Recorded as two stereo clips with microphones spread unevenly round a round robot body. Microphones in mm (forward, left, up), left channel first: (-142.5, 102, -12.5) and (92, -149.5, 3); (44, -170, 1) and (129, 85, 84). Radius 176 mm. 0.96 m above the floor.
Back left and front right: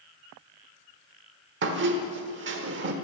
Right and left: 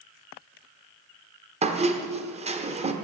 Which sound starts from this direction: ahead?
A squeak, at 1.6 s.